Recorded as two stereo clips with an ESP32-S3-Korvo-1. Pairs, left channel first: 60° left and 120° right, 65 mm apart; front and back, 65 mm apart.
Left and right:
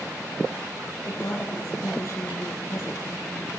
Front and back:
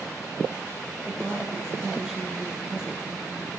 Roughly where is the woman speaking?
Left.